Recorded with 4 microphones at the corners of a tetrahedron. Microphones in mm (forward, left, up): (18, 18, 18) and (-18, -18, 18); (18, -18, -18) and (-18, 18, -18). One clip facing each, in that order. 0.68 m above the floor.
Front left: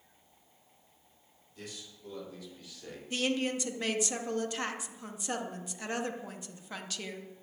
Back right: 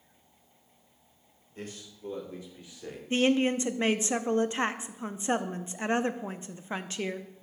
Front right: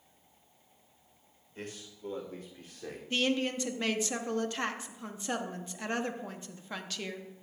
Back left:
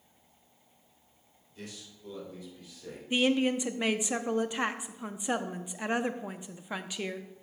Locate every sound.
1.6 s a man speaking: 90° right, 2.5 m; by 3.0 s 65° right, 1.9 m
3.1 s a woman speaking: 165° right, 0.6 m